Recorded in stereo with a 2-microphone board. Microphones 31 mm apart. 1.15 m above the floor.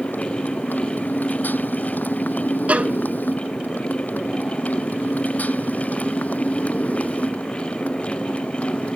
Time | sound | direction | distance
0.0 | a motorcycle | 85° left | ?
2.7 | a violin | 50° right (ahead or behind) | ?